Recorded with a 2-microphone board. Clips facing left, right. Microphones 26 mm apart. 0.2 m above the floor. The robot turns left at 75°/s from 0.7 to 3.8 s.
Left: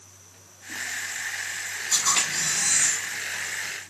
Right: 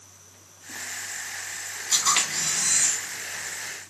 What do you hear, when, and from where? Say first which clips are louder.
1.9 s a camera shutter: right 1 dB; 135° right, 1.2 m; by 3.0 s 140° left, 1.2 m